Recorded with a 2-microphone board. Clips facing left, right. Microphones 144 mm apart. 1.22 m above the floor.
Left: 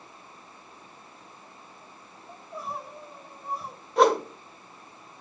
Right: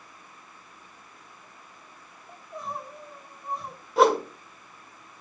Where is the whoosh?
Centre (ahead or behind), 0.9 m.